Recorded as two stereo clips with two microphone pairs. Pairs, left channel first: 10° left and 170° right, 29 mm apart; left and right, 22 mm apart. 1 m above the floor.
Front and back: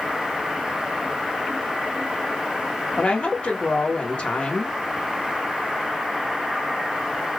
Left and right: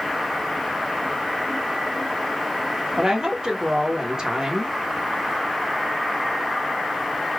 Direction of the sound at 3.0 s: 30° right.